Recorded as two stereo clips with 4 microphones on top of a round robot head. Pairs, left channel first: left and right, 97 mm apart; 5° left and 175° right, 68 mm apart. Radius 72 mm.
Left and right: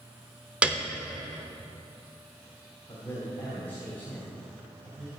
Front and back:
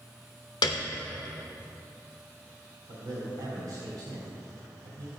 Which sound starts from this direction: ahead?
A piano, at 0.6 s.